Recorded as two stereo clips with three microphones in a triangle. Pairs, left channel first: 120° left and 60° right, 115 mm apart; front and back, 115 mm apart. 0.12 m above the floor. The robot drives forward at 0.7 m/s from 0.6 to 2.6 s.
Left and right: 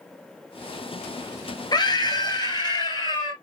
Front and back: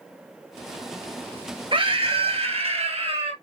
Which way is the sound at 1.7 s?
160° left.